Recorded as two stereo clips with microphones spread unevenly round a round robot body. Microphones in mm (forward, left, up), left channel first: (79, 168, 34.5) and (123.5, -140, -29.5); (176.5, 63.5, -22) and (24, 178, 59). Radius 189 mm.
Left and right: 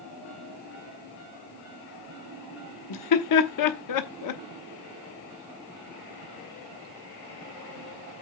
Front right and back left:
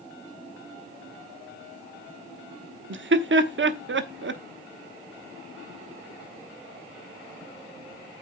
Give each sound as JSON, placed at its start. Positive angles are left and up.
{"t": 2.9, "sound": "laughter", "azimuth_deg": 110, "distance_m": 0.9}